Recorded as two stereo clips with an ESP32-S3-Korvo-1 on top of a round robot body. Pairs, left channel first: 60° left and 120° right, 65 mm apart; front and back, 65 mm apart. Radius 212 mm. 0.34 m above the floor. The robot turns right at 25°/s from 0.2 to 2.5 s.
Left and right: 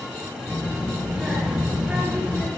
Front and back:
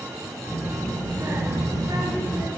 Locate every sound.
0.5 s a child speaking: 125° left, 6 m; by 2.5 s 175° left, 6 m